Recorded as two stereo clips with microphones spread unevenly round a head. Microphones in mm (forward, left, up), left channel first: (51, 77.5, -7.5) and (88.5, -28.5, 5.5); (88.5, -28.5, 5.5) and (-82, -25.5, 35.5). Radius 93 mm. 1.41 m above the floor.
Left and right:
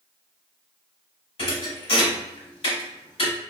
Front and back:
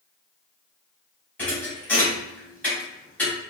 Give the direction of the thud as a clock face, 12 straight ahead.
9 o'clock.